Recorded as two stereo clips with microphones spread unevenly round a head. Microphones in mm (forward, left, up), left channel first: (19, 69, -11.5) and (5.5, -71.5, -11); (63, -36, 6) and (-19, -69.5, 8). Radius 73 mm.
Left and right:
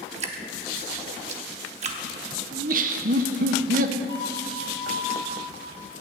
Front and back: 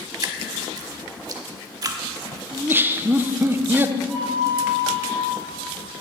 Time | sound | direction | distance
0.2 | dripping | 125° right | 1.0 m
2.5 | laughter | 95° right | 0.7 m
4.1 | a flute | 150° left | 3 m